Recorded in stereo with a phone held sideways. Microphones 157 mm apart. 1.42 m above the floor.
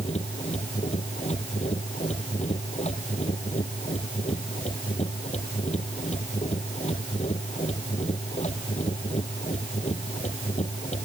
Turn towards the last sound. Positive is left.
turn(degrees=45)  # may be behind; listen again after turning